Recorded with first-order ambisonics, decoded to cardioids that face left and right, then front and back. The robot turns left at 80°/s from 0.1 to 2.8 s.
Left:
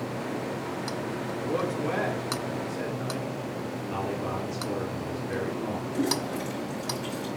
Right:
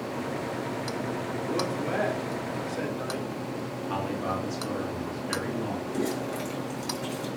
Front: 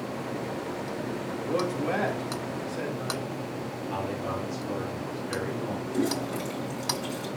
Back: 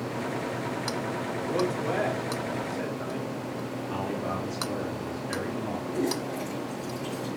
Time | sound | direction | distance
1.4 | a man speaking | 40° left | 3 m
3.9 | a man speaking | 95° right | 3 m
5.9 | a toilet flushing | 45° right | 4.5 m